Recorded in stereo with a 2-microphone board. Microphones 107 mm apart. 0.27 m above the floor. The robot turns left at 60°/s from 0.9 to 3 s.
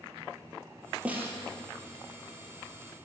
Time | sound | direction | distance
1.1 | a snare drum | 10° right (ahead or behind) | 2.5 m